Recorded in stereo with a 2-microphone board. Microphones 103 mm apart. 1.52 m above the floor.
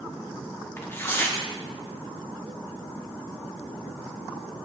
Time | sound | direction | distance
0.8 | tearing paper | 20° left (ahead or behind) | 1.0 m